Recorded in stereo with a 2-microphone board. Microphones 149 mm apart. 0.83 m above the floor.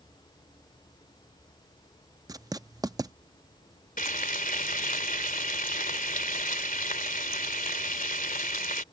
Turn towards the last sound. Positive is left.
turn(degrees=70)  # may be behind; listen again after turning